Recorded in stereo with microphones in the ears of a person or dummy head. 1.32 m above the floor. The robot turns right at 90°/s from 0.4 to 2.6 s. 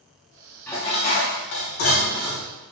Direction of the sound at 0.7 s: 15° left.